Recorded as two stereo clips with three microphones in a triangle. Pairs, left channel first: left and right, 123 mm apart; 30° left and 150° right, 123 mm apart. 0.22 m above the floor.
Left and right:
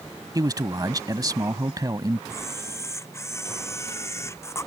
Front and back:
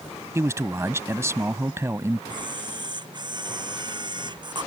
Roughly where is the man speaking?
Right.